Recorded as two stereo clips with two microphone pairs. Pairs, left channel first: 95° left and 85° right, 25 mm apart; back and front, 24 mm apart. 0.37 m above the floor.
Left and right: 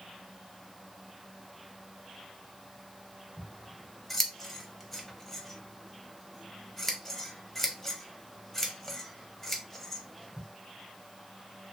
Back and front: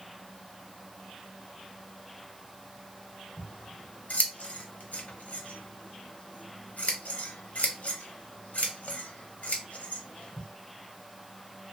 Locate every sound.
3.4 s scissors: 175° left, 0.6 m